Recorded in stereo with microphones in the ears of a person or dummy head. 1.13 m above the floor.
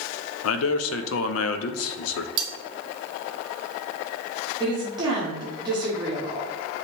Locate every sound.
0.4 s a man speaking: 75° left (ahead or behind), 0.5 m
2.4 s cutlery clinking: 25° right (ahead or behind), 0.8 m
4.6 s a woman speaking: 25° right (ahead or behind), 0.9 m